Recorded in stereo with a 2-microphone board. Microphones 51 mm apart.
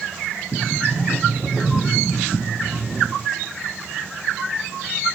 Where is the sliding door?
25° left (ahead or behind), 5 m.